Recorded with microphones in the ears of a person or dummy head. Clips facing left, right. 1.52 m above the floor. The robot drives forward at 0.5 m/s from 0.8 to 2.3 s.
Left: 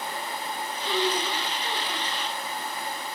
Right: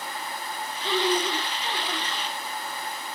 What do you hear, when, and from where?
0.8 s a woman speaking: 50° right (ahead or behind), 4.5 m; by 2.1 s 45° right (ahead or behind), 5 m